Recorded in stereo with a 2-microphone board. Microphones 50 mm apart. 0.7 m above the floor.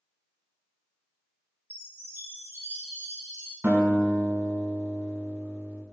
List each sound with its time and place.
1.7 s a chime: 40° right (ahead or behind), 1.6 m
3.6 s a guitar: 45° right (ahead or behind), 1.4 m